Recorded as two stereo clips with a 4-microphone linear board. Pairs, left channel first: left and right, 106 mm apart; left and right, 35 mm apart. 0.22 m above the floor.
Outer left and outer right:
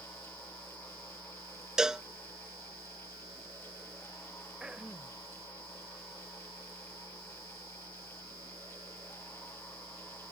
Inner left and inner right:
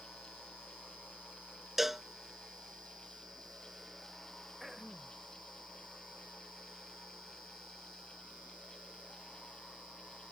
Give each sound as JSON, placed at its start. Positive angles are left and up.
{"t": 1.8, "sound": "a cowbell", "side_deg": -5}
{"t": 4.6, "sound": "throat clearing", "side_deg": -10}